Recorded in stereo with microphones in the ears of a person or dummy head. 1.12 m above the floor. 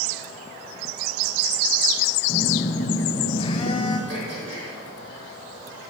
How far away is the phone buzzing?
About 0.6 m.